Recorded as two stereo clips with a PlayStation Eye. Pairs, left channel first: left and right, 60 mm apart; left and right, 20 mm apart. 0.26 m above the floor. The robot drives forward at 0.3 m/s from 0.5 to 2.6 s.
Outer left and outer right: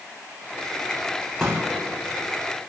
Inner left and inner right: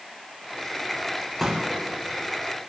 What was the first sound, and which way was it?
A pop, 10° left (ahead or behind).